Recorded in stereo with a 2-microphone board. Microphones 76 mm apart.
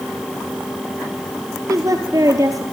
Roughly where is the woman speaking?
Right.